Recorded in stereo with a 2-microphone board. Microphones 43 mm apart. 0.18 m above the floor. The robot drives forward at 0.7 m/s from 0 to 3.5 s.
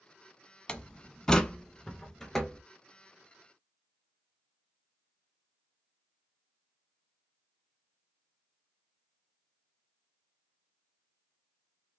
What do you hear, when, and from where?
0.7 s a door slam: 20° left (ahead or behind), 0.8 m; by 2.6 s 10° left (ahead or behind), 1.8 m